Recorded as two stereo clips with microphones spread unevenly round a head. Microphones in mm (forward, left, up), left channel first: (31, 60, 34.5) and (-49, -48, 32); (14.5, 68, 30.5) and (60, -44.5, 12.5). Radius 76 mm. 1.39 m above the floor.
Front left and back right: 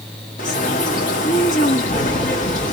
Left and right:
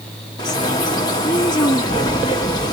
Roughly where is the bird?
Left.